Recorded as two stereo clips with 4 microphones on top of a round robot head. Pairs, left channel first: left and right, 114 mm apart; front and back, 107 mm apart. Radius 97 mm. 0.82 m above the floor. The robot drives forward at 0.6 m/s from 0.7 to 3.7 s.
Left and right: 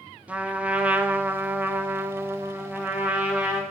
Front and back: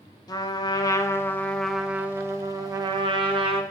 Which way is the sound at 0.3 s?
20° right.